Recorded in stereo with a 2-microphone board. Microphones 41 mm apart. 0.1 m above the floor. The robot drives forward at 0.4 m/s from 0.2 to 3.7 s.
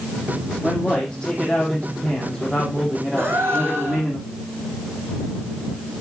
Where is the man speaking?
20° left (ahead or behind), 3.5 m; by 4.2 s 15° left (ahead or behind), 4.5 m.